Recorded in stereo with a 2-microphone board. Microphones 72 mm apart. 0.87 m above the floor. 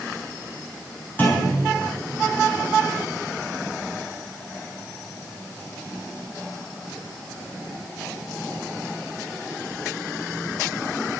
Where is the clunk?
25° left (ahead or behind), 5.5 m.